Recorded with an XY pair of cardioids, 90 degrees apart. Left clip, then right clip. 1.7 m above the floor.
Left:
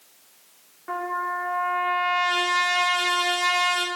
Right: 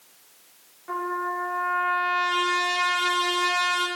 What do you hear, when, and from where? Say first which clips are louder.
0.9 s a trumpet: left 1 dB; 40° left, 1.6 m